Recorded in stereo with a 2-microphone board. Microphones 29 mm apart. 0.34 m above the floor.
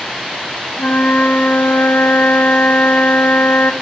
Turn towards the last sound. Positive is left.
turn(degrees=70)  # may be behind; listen again after turning